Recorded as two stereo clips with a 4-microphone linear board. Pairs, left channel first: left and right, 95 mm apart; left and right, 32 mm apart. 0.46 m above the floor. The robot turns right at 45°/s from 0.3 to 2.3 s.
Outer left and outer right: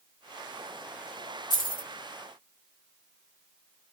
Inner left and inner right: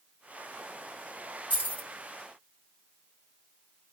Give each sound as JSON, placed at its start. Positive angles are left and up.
{"t": 1.5, "sound": "keys jangling", "side_deg": 45, "distance_m": 1.3}